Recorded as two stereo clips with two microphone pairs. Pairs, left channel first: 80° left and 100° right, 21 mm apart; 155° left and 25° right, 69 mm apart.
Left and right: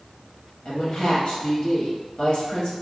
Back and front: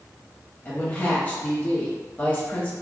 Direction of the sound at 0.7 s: 95° left.